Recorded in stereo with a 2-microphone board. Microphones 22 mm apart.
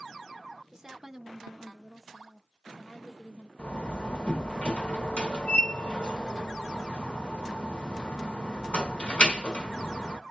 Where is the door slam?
70° left (ahead or behind), 1.0 m.